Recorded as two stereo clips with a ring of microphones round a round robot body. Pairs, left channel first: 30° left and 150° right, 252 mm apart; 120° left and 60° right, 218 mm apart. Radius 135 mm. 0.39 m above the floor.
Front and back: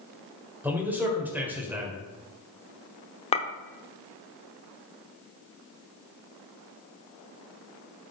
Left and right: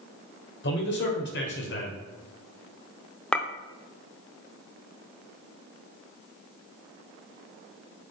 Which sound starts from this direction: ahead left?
A clink, at 3.3 s.